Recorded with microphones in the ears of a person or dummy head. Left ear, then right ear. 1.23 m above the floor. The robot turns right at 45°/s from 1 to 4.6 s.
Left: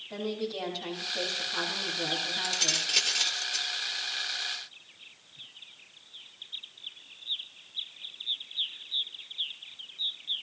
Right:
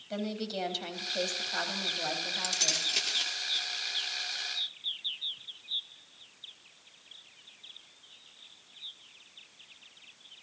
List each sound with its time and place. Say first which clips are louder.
0.1 s a woman speaking: left 1 dB; 90° right, 3.5 m; by 2.9 s 5° right, 3.5 m
2.4 s keys jangling: even; 20° right, 1.5 m; by 3.7 s 35° left, 1.5 m